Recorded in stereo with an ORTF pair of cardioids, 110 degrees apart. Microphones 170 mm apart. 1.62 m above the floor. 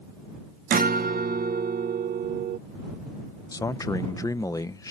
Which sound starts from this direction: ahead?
A man speaking, at 3.5 s.